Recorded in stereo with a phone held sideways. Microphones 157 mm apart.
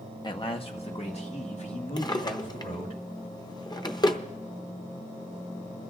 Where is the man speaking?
30° left (ahead or behind), 0.9 m; by 3.0 s 50° left (ahead or behind), 3.5 m.